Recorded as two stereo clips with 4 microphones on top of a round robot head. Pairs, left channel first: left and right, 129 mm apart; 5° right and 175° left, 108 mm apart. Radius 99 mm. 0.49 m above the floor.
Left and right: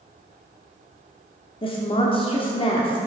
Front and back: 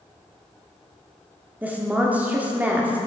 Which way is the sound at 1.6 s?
105° left.